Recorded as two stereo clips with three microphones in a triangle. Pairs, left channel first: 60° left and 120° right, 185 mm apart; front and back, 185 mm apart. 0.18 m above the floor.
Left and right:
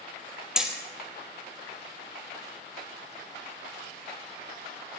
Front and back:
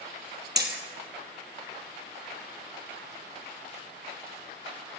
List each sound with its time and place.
0.6 s hammering: 155° left, 2.5 m